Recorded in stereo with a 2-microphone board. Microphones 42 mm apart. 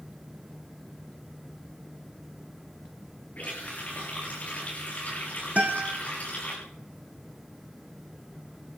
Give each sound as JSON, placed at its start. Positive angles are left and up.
{"t": 3.4, "sound": "a running tap", "side_deg": 40, "distance_m": 7.5}
{"t": 5.6, "sound": "a guitar", "side_deg": -35, "distance_m": 3.5}